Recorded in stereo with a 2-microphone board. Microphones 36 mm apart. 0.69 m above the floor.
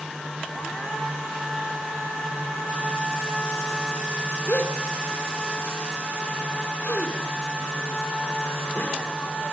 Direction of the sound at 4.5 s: 50° left (ahead or behind).